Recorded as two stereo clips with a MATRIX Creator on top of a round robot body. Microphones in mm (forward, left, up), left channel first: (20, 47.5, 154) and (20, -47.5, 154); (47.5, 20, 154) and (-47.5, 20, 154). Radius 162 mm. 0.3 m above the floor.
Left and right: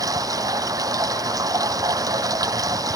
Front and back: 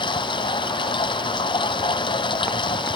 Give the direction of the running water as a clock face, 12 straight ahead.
1 o'clock.